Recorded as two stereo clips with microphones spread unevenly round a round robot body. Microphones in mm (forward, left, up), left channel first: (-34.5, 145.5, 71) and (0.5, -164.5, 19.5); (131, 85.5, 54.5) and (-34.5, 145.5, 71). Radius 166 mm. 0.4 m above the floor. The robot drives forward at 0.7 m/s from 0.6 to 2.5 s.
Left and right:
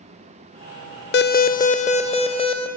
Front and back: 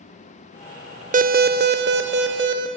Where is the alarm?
150° left, 0.5 m; by 2.7 s 170° left, 1.3 m.